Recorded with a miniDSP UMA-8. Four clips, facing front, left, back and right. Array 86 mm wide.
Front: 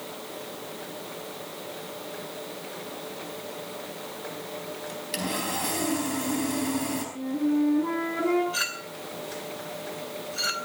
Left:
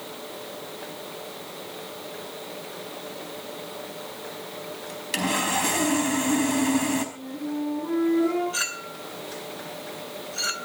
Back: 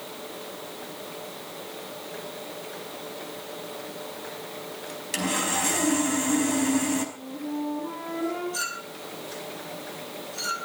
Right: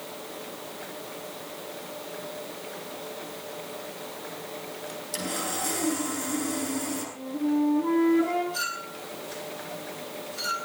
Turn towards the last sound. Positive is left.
turn(degrees=45)